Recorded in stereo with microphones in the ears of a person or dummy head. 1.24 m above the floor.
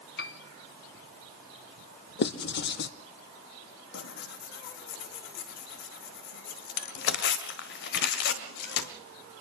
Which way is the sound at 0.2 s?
60° left (ahead or behind).